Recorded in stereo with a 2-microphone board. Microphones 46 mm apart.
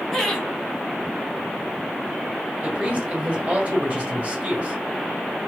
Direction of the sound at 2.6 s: 30° right (ahead or behind).